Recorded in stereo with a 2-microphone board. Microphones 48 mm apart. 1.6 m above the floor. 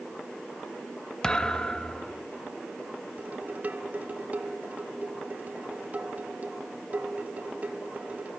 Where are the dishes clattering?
35° right (ahead or behind), 1.5 m.